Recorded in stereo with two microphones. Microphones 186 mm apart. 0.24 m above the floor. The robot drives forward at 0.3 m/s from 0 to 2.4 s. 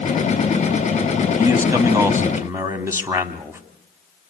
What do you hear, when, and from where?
1.4 s a man speaking: 15° right (ahead or behind), 1.6 m